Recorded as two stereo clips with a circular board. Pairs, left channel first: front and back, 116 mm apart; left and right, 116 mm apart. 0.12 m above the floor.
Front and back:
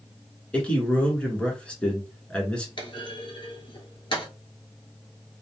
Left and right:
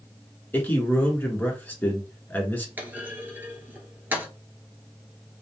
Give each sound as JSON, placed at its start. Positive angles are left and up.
{"t": 0.5, "sound": "a man speaking", "azimuth_deg": 60, "distance_m": 1.1}
{"t": 2.8, "sound": "a clunk", "azimuth_deg": -20, "distance_m": 1.0}